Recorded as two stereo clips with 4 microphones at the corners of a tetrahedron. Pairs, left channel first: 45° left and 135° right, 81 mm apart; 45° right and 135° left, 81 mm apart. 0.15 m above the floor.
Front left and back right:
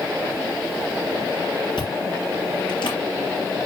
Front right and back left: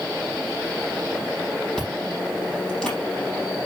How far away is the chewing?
About 5 m.